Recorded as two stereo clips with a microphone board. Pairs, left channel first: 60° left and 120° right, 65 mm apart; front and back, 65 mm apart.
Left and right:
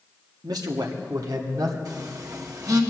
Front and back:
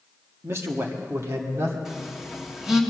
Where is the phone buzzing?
95° right, 1.8 m.